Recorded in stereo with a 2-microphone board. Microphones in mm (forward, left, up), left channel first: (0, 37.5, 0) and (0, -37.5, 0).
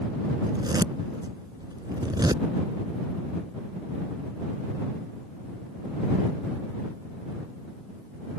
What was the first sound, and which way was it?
A zipper, 75° right (ahead or behind).